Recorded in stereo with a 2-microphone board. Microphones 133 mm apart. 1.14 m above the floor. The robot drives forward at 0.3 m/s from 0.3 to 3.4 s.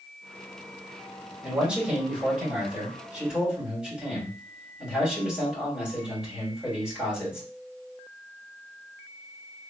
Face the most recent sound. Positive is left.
turn(degrees=-5)  # may be behind; listen again after turning